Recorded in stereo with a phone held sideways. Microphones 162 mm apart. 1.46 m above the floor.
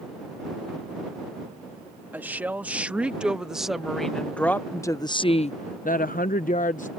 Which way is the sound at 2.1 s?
10° right (ahead or behind).